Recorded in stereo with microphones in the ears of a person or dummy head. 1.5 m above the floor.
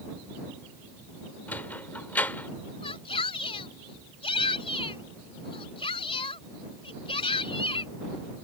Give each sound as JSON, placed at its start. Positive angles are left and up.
{"t": 1.5, "sound": "a sliding door", "side_deg": 5}
{"t": 2.8, "sound": "a shout", "side_deg": 25}